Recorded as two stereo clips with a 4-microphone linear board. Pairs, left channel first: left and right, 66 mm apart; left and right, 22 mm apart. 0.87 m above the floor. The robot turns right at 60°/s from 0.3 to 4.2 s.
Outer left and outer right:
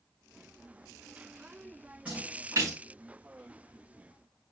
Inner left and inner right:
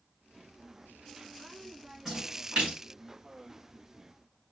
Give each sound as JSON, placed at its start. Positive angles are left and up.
{"t": 2.0, "sound": "a splash", "side_deg": -20, "distance_m": 5.5}